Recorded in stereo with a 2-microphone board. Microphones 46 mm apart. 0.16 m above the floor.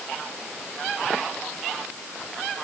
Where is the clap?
I don't hear a clap.